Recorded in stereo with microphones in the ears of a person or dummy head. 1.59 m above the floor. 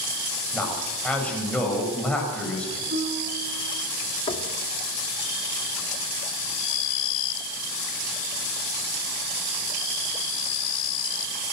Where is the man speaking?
5° left (ahead or behind), 7 m.